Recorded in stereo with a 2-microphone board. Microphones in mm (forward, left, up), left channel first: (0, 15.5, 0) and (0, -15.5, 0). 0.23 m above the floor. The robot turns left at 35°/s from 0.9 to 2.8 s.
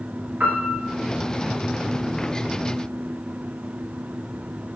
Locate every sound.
0.4 s a piano: 80° right, 0.7 m